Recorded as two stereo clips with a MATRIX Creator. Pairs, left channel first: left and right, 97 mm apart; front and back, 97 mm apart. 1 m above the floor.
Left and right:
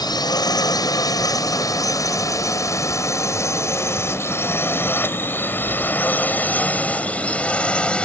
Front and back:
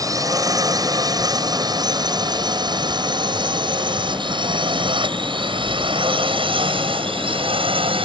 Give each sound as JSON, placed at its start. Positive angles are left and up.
{"t": 0.0, "sound": "a drone", "azimuth_deg": 130}